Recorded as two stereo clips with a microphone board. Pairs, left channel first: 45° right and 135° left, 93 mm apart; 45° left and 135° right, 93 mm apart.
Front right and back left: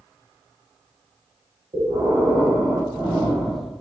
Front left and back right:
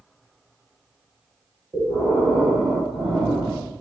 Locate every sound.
1.7 s breathing: 175° left, 2.5 m